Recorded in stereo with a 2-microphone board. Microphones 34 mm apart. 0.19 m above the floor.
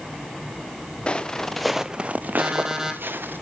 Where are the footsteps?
30° left (ahead or behind), 1.2 m; by 3.4 s 85° right, 1.8 m.